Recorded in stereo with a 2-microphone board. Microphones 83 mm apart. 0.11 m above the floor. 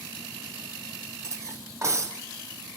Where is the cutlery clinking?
35° right (ahead or behind), 2.5 m.